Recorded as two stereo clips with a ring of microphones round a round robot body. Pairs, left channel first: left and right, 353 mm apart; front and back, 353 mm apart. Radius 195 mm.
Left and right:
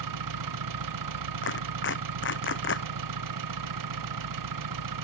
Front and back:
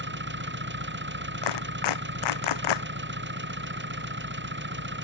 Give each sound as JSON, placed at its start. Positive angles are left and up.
{"t": 0.0, "sound": "an engine running", "azimuth_deg": -120}
{"t": 1.4, "sound": "a clap", "azimuth_deg": 30}